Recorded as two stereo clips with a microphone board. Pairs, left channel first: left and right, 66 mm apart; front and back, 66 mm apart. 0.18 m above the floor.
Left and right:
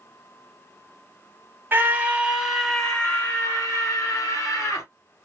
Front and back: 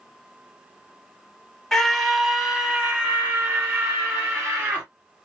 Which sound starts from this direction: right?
A scream, at 1.7 s.